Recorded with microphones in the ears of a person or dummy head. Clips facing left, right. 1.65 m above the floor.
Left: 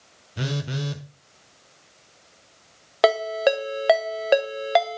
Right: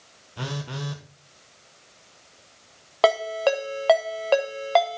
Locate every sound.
0.4 s a phone buzzing: 20° left (ahead or behind), 1.0 m
3.0 s a ringtone: 15° left (ahead or behind), 0.7 m